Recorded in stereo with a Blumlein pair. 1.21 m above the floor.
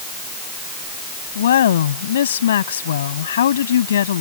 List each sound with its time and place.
1.4 s a woman speaking: 65° left